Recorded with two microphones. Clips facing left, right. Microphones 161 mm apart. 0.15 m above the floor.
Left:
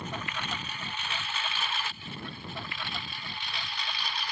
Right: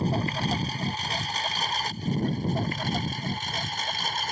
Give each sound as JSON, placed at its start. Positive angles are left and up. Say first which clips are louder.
{"t": 0.0, "sound": "a lawn mower", "louder": "right 10 dB", "side_deg": -35}